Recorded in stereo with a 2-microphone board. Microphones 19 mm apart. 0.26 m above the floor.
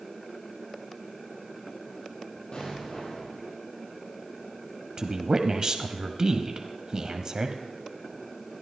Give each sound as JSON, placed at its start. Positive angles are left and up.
{"t": 2.5, "sound": "an explosion", "side_deg": 55, "distance_m": 8.0}
{"t": 5.0, "sound": "a woman speaking", "side_deg": -35, "distance_m": 1.1}